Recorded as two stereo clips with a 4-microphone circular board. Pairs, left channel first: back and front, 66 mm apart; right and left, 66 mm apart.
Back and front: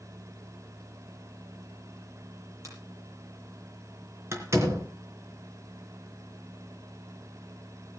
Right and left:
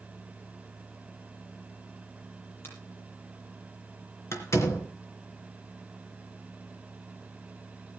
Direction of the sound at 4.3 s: 45° right.